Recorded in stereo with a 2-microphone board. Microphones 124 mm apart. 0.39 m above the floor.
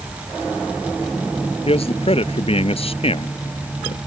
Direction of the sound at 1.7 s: 50° left (ahead or behind).